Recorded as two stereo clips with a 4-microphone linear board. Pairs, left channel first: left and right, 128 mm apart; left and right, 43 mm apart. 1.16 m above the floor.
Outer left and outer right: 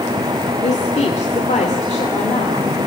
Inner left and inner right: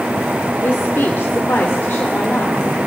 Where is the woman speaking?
60° left (ahead or behind), 2.5 m; by 2.6 s 70° left (ahead or behind), 3.5 m.